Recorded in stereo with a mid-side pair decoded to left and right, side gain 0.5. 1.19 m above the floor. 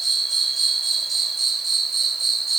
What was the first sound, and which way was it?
An insect, 30° right.